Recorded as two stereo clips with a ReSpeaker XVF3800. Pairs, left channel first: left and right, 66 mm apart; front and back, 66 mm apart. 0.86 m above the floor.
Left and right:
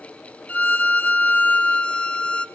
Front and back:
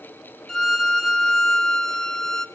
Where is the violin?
70° left, 0.7 m.